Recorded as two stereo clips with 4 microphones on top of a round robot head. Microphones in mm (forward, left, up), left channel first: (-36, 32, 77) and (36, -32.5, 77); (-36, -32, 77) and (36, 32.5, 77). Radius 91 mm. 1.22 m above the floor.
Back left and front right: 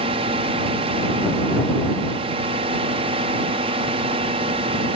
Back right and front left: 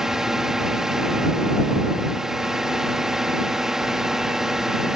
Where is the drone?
45° right.